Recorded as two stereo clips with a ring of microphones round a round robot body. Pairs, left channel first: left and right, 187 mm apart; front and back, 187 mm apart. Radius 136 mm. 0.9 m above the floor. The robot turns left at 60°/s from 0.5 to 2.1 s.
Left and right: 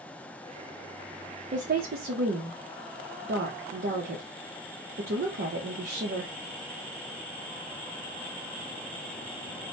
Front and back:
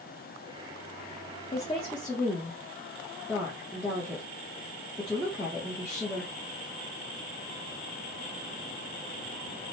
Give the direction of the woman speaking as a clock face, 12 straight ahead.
2 o'clock.